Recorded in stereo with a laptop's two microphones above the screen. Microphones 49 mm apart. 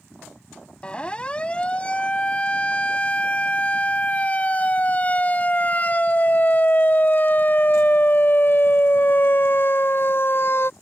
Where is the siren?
20° left (ahead or behind); by 10.7 s 50° left (ahead or behind).